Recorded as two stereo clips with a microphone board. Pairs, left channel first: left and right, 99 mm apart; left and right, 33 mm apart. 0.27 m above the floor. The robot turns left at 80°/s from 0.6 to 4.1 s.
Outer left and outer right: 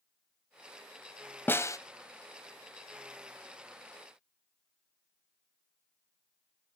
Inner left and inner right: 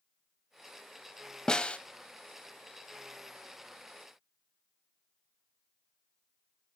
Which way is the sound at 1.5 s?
20° left (ahead or behind).